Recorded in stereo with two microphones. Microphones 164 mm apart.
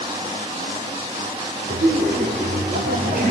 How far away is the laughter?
About 2.5 m.